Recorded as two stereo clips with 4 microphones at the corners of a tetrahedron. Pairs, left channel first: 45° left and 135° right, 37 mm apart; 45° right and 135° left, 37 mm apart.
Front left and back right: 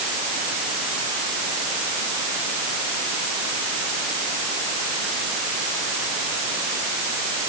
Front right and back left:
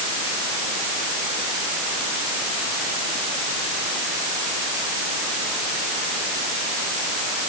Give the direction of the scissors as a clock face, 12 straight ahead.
I don't hear scissors.